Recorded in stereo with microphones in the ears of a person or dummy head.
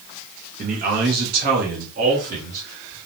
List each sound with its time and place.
0.6 s a man speaking: 40° right (ahead or behind), 0.6 m; by 3.0 s 45° right (ahead or behind), 1.4 m